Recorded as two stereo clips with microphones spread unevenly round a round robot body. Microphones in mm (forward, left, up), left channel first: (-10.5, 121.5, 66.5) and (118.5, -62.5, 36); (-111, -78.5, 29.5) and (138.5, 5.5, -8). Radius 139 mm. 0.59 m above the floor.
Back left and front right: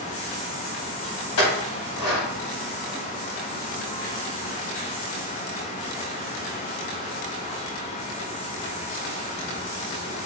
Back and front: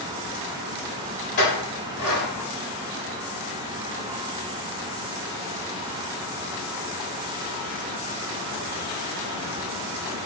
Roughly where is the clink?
Behind left.